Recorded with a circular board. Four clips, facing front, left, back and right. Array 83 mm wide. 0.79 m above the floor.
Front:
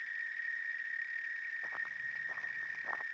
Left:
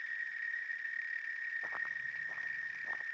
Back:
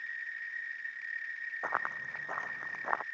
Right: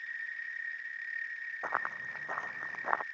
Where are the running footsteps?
140° right; by 3.0 s 120° right.